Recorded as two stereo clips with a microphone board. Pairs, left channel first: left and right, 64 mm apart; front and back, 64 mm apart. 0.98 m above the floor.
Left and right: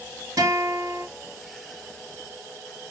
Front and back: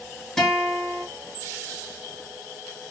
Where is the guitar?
80° right, 1.1 m.